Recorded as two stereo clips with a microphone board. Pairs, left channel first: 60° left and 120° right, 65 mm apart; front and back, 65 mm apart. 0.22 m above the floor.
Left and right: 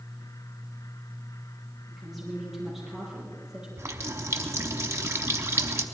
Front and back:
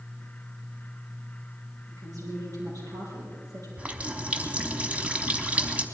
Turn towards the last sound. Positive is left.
turn(degrees=-115)